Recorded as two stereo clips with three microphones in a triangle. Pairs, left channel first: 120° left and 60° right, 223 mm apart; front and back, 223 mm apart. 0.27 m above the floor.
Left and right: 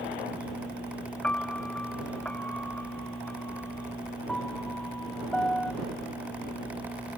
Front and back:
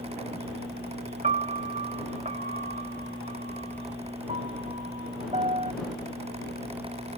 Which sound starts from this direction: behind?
A piano, at 1.2 s.